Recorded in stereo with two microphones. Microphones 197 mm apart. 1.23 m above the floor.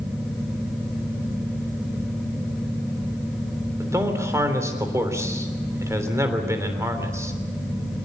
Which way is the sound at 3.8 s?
15° right (ahead or behind).